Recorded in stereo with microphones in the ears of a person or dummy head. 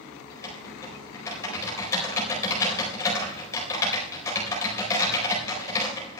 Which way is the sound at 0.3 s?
25° left (ahead or behind).